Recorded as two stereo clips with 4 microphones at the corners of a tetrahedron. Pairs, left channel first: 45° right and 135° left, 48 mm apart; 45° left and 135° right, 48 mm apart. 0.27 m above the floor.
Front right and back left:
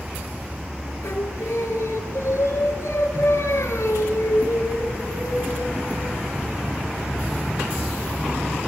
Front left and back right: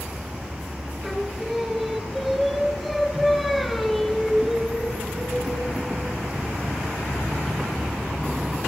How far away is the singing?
About 3 m.